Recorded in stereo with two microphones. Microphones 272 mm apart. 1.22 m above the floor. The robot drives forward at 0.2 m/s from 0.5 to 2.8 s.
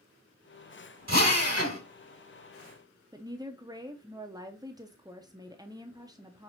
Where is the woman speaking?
15° right (ahead or behind), 0.6 m.